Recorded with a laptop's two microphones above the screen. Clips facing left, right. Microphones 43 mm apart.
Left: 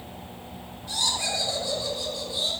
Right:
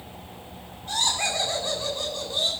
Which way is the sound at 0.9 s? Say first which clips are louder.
Right 2 dB; 55° right (ahead or behind).